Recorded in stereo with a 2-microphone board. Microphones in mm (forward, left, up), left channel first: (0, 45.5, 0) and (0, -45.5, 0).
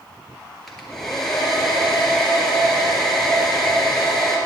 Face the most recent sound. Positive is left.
turn(degrees=5)  # may be behind; listen again after turning